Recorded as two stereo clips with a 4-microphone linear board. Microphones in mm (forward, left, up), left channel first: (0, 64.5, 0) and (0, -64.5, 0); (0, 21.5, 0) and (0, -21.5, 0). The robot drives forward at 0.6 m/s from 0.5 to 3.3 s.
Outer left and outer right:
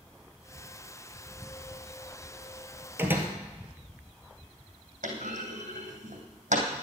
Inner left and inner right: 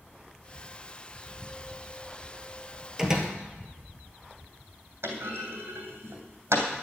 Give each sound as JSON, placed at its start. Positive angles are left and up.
{"t": 3.0, "sound": "a door slam", "side_deg": -15, "distance_m": 1.6}
{"t": 5.0, "sound": "a clunk", "side_deg": -75, "distance_m": 2.5}